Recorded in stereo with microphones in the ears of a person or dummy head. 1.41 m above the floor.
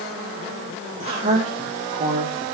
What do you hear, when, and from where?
1.0 s a woman speaking: 30° right (ahead or behind), 1.8 m